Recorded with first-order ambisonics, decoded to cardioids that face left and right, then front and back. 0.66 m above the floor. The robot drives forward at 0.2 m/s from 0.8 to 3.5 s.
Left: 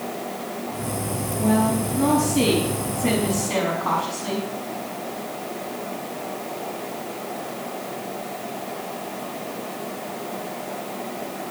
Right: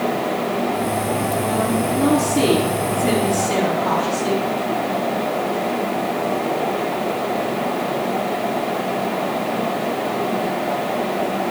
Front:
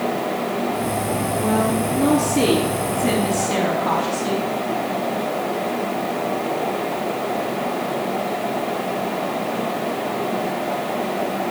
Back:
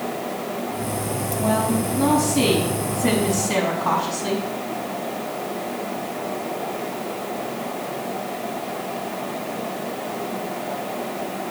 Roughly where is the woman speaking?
Behind left.